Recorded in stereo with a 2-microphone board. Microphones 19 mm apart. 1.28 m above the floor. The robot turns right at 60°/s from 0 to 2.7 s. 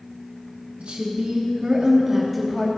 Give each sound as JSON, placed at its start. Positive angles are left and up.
{"t": 0.8, "sound": "a woman speaking", "azimuth_deg": -100, "distance_m": 2.5}